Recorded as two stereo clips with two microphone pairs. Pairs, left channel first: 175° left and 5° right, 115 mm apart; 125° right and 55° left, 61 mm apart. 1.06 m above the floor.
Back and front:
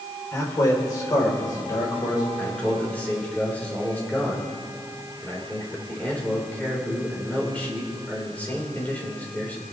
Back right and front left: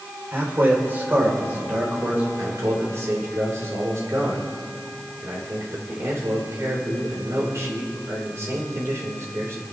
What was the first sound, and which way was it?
A man speaking, 110° left.